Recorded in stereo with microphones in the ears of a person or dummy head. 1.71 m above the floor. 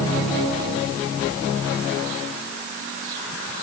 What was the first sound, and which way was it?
Only background noise.